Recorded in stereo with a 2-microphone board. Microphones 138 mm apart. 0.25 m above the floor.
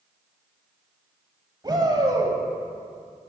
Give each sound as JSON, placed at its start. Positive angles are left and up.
{"t": 1.6, "sound": "a shout", "side_deg": -30, "distance_m": 1.2}